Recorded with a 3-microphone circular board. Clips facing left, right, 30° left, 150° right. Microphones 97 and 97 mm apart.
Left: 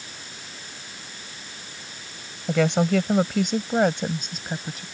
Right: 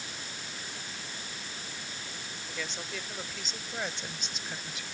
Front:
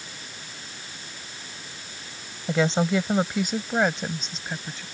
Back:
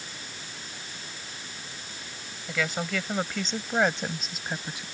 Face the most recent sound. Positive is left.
turn(degrees=135)